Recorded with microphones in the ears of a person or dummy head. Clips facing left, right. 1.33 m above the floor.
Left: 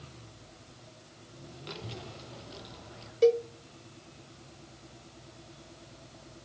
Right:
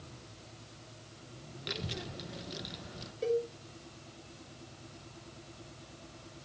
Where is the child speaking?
20° right (ahead or behind), 0.9 m.